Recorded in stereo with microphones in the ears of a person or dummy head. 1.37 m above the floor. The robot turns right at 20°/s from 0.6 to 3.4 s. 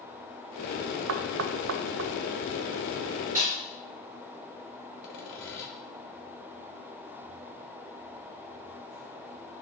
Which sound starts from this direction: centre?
A snare drum, at 3.4 s.